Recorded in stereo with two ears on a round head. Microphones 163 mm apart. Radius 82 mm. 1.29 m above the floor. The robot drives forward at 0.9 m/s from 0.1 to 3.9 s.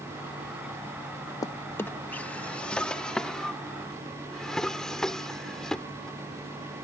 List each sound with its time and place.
1.4 s a drawer: 20° left (ahead or behind); by 6.8 s 5° left (ahead or behind)